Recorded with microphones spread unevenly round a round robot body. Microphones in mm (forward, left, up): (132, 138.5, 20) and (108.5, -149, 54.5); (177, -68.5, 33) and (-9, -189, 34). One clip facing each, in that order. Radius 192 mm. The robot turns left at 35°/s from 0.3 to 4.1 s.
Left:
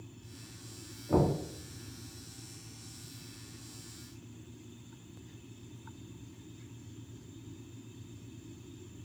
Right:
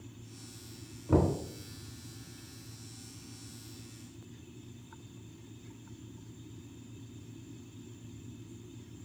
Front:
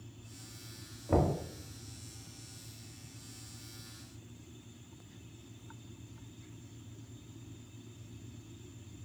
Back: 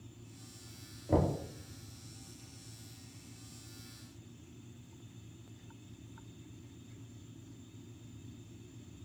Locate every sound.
1.1 s knocking: 60° right, 1.1 m; by 1.4 s 70° right, 1.1 m